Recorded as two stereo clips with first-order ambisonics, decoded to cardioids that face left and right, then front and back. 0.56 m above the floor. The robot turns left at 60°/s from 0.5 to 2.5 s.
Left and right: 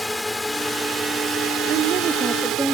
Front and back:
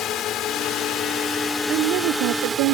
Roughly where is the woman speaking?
Behind right.